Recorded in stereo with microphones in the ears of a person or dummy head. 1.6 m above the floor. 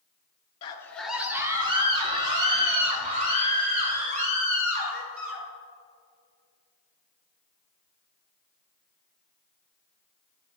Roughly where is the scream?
Left.